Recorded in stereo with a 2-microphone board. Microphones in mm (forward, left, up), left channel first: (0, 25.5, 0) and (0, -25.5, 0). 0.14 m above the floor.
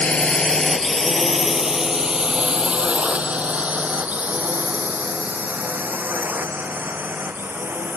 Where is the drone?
20° left (ahead or behind); by 8.0 s 45° right (ahead or behind).